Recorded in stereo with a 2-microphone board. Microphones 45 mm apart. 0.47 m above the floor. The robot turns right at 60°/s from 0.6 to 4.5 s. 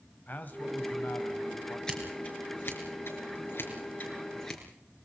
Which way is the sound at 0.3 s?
45° left.